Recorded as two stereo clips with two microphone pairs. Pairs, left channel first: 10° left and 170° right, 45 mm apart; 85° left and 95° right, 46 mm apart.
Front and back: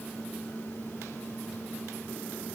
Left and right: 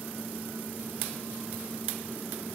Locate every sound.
Only background noise.